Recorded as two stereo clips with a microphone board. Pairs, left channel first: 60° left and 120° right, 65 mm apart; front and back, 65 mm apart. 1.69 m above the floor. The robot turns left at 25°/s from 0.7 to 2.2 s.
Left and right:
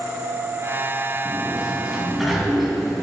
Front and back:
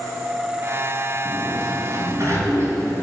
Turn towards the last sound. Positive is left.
turn(degrees=155)